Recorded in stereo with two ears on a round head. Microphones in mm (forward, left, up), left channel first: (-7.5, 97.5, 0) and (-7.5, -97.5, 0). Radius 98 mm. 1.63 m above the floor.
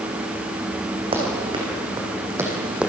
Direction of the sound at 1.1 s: 25° right (ahead or behind).